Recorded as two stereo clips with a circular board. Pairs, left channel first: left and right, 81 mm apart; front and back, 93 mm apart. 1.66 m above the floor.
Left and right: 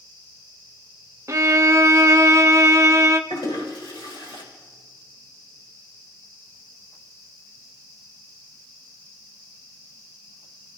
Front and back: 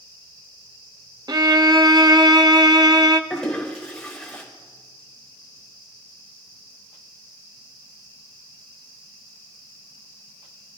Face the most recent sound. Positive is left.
turn(degrees=85)